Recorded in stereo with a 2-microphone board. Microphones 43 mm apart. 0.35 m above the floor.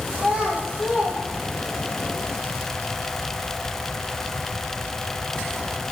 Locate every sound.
0.1 s a child speaking: 20° right (ahead or behind), 5.5 m; by 2.0 s centre (ahead or behind), 6 m